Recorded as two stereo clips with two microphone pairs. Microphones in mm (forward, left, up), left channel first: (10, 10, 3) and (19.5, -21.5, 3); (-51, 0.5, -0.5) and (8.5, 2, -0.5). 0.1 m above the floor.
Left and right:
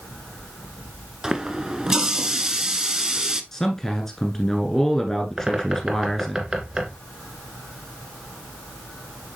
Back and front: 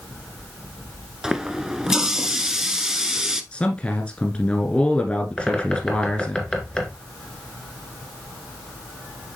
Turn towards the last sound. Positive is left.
turn(degrees=-120)